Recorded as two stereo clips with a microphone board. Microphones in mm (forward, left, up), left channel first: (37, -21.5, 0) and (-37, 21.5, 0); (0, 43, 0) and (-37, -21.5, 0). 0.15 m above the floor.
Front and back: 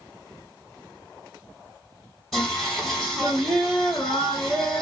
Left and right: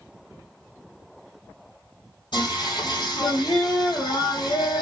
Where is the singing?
60° left, 1.6 m.